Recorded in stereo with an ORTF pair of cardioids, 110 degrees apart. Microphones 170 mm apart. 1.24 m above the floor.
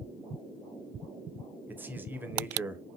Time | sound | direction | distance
1.7 | a man speaking | 10° right | 0.7 m